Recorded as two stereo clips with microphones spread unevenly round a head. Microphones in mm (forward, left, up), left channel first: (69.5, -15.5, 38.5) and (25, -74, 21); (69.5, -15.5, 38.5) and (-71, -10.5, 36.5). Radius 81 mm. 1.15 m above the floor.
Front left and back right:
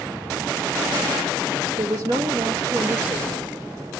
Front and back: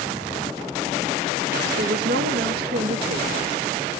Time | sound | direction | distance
1.8 | a woman speaking | 175° right | 1.2 m